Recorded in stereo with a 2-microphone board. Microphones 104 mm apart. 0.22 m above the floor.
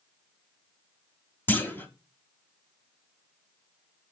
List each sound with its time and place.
1.5 s a clunk: 20° left (ahead or behind), 0.9 m